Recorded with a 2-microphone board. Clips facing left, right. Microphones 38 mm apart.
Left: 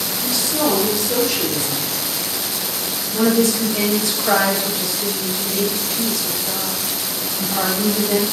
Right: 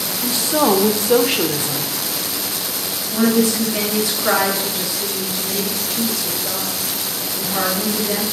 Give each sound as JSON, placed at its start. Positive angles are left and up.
{"t": 0.2, "sound": "a woman speaking", "side_deg": -35, "distance_m": 1.0}
{"t": 3.1, "sound": "a woman speaking", "side_deg": -20, "distance_m": 5.0}